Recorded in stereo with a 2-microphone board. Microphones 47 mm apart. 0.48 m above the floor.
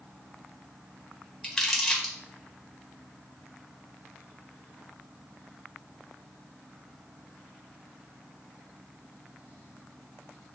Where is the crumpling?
10° left (ahead or behind), 1.9 m.